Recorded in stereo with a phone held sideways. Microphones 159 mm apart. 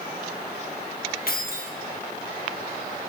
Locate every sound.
1.3 s keys jangling: 70° left (ahead or behind), 1.3 m